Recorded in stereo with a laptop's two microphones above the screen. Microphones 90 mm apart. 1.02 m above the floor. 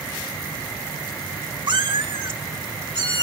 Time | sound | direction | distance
1.7 | a cat meowing | 55° right (ahead or behind) | 1.0 m